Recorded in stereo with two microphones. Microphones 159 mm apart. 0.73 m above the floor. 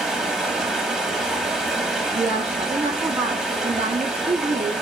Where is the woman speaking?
45° right (ahead or behind), 0.6 m.